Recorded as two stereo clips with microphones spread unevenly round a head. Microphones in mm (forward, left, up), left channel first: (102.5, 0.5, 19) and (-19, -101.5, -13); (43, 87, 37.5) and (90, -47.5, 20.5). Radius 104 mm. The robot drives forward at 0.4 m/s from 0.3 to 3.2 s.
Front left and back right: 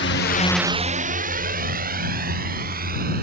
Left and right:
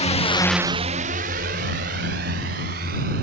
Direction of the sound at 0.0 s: 65° left.